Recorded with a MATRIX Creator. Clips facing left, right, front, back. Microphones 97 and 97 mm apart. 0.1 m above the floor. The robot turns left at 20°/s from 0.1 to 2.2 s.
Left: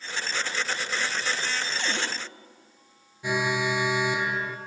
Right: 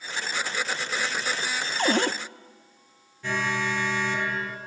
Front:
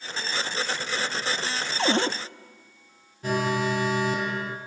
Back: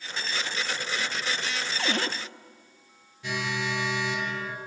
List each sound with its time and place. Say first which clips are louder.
1.8 s a cupboard door: right 7 dB, front 7 dB; 50° right, 0.7 m; by 2.2 s 60° right, 0.7 m
3.2 s an alarm: left 2 dB, front 6 dB; 20° left, 1.8 m